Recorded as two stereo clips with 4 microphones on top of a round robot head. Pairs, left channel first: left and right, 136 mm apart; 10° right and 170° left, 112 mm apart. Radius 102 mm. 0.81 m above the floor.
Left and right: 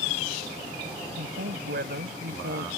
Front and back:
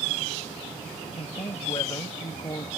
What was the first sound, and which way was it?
A woman speaking, 70° right.